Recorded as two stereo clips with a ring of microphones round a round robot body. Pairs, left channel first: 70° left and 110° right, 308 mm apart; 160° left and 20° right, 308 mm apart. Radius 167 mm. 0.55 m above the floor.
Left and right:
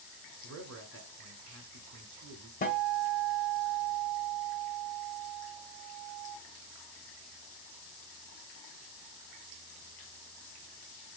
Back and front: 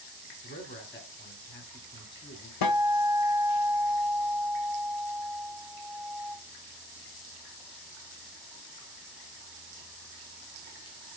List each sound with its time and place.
0.4 s a man speaking: 150° right, 2.0 m
2.6 s a guitar: 135° left, 0.8 m